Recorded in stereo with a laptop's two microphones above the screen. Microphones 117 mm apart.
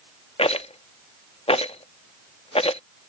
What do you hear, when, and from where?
0.4 s a rattle: 55° left (ahead or behind)